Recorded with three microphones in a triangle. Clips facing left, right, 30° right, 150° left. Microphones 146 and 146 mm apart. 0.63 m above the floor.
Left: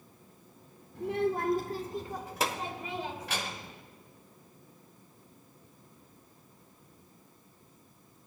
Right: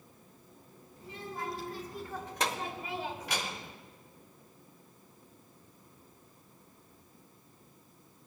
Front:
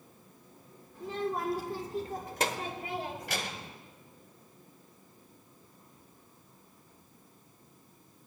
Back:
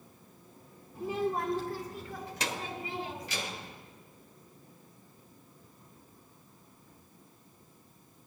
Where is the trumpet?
No trumpet in this recording.